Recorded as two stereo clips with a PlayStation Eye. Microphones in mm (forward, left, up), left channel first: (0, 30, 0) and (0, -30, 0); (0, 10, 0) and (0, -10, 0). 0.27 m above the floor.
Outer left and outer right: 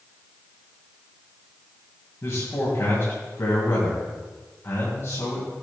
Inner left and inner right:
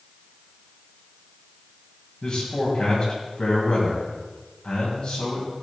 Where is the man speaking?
45° left (ahead or behind), 2 m.